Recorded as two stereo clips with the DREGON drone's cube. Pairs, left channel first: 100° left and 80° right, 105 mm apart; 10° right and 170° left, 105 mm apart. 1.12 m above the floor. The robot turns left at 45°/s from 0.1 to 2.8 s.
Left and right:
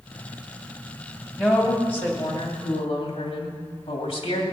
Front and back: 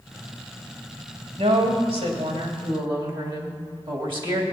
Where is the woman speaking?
165° right, 2.5 m; by 4.4 s 130° left, 2.5 m.